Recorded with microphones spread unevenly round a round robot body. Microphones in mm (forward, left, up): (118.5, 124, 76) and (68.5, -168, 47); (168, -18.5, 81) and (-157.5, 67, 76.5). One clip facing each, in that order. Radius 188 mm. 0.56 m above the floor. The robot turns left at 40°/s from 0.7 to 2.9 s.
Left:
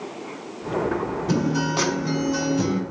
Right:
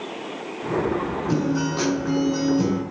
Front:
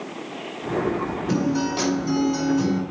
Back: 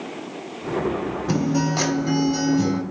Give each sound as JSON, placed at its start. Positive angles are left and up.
{"t": 1.3, "sound": "a guitar", "azimuth_deg": 135, "distance_m": 5.5}